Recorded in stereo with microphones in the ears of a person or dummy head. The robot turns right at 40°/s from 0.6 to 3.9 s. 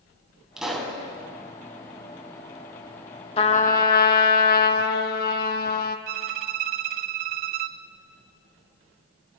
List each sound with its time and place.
0.6 s a pop: 10° right (ahead or behind), 4.5 m; by 1.0 s 5° left (ahead or behind), 4.5 m
3.4 s a trumpet: 30° left (ahead or behind), 1.7 m; by 6.0 s 50° left (ahead or behind), 1.7 m
6.1 s a violin: 55° right (ahead or behind), 0.5 m